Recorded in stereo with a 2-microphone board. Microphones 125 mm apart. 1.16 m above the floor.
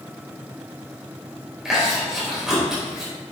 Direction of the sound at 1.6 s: 5° right (ahead or behind).